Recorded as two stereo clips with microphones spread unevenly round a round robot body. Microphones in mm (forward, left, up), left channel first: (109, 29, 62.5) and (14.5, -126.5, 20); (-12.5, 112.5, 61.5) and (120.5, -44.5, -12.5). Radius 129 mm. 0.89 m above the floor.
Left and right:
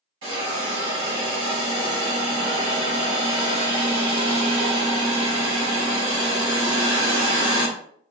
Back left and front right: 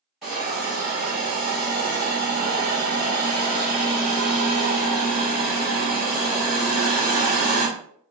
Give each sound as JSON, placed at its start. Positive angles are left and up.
{"t": 0.2, "sound": "a hiss", "azimuth_deg": -140, "distance_m": 1.6}